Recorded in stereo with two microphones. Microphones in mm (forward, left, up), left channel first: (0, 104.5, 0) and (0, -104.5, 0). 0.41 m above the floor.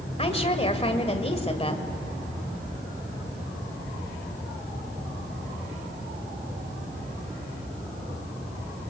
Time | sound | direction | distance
0.2 | a woman speaking | 30° left (ahead or behind) | 2 m